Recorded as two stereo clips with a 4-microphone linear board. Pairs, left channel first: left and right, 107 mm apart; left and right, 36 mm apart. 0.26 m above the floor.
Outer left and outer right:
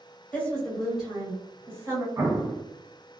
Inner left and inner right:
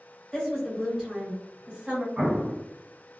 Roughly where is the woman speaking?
Centre.